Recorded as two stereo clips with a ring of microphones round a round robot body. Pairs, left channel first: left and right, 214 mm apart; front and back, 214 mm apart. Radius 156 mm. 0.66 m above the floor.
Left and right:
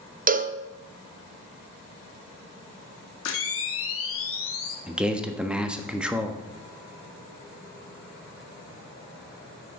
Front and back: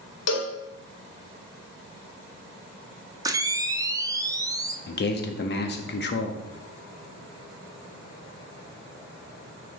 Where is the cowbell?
30° right, 0.6 m.